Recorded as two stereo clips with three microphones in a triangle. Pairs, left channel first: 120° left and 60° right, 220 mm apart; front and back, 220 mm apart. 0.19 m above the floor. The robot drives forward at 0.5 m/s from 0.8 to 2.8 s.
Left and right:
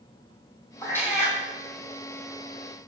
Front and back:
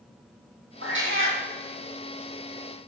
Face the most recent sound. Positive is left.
turn(degrees=-170)